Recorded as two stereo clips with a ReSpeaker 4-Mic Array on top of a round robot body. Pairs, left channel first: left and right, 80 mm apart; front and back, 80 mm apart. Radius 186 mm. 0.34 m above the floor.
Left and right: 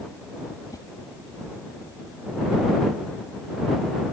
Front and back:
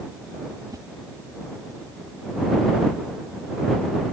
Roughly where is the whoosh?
Behind left.